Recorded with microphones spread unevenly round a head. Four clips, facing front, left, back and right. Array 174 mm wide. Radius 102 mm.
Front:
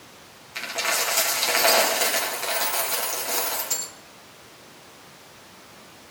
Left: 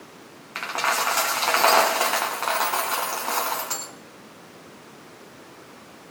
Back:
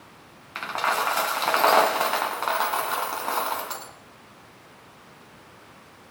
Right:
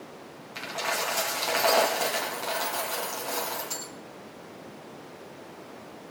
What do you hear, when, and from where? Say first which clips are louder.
0.6 s a dropped coin: left 6 dB, back 4 dB; 120° left, 3.5 m